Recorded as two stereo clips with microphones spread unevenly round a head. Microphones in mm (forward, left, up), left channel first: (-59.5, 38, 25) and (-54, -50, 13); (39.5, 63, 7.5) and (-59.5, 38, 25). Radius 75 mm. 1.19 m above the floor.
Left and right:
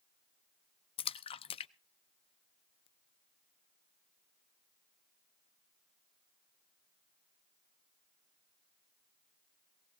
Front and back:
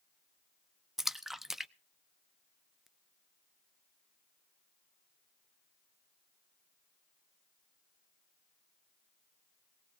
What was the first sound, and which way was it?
A splash, 110° left.